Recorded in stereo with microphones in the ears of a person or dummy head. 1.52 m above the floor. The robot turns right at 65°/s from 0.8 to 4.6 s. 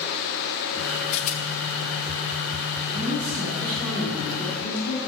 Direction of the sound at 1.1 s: 25° left (ahead or behind).